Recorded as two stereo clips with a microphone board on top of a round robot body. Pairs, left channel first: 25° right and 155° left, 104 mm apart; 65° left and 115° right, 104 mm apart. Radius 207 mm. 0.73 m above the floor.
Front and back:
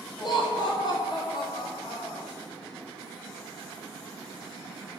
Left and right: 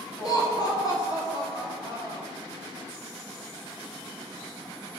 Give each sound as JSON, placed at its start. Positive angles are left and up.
{"t": 0.2, "sound": "laughter", "azimuth_deg": 20, "distance_m": 3.5}